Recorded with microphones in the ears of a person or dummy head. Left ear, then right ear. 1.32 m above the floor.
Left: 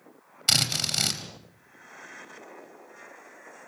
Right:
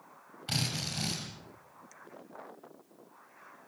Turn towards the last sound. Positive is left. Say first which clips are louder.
# left 10 dB
turn(degrees=70)  # may be behind; listen again after turning